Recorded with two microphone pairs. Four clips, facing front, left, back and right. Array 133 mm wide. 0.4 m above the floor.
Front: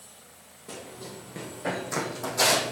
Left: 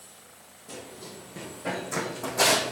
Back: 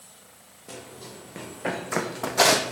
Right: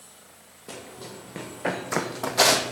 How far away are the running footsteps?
About 2 m.